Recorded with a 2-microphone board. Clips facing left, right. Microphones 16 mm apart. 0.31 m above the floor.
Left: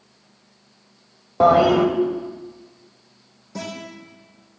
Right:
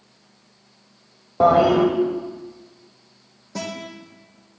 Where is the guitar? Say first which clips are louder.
Right 2 dB; 45° right (ahead or behind), 2.5 m.